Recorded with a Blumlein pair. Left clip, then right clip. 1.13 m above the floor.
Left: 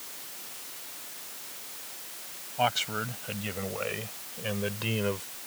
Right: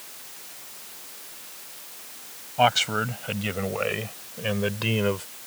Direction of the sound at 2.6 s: 20° right.